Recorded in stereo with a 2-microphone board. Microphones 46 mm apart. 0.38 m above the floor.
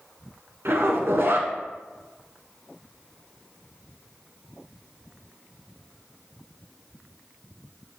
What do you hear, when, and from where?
0.7 s a zipper: 60° right (ahead or behind), 1.2 m